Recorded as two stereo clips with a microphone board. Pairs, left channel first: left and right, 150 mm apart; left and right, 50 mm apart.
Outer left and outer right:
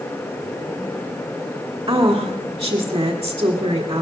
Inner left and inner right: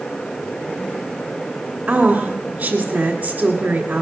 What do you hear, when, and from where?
1.9 s a woman speaking: 25° right (ahead or behind), 1.5 m